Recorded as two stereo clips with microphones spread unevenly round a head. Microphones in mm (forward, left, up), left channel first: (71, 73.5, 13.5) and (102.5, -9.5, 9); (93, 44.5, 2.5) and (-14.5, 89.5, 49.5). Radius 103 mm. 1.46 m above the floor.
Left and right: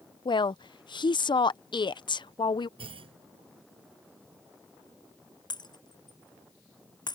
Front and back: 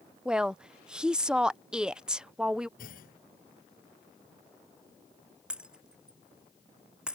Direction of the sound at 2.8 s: 60° right.